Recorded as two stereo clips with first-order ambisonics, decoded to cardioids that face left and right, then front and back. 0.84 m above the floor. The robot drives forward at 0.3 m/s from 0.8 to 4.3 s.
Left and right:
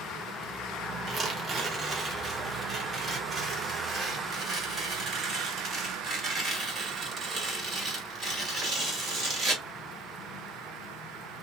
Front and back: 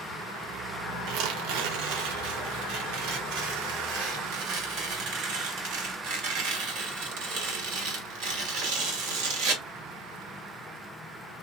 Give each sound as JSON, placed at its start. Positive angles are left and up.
{"t": 1.1, "sound": "tearing paper", "azimuth_deg": -155, "distance_m": 0.7}